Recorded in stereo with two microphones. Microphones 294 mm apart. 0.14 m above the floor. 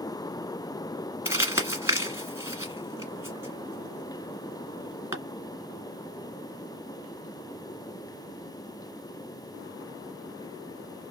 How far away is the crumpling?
About 1.5 m.